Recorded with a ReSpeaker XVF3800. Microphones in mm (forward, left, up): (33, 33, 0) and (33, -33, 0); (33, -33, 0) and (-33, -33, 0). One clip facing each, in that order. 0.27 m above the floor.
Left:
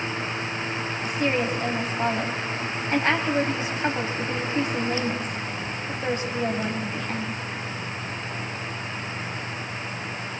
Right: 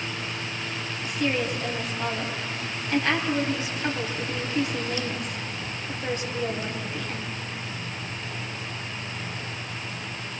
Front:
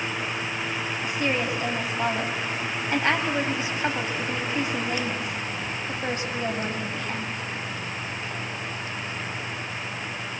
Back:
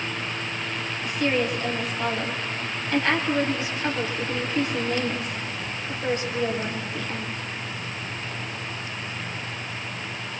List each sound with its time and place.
1.0 s a woman speaking: 50° left, 2.0 m